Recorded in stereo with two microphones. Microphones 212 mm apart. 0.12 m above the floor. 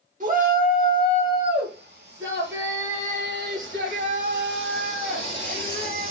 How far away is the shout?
About 1.9 m.